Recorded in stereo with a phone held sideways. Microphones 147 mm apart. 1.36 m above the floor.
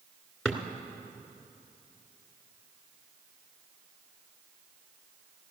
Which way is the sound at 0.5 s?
Centre (ahead or behind).